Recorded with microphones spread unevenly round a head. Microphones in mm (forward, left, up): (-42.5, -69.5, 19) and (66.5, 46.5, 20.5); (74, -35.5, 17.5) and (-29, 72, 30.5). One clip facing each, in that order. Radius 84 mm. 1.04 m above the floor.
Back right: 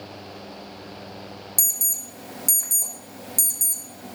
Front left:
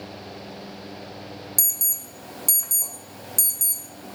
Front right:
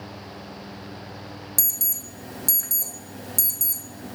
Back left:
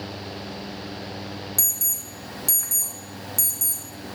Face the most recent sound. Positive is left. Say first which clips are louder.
# even, even
turn(degrees=-55)